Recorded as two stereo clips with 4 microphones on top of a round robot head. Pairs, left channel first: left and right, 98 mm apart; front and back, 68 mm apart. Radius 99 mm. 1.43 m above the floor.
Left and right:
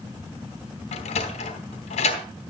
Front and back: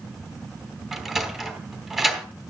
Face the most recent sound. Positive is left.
turn(degrees=95)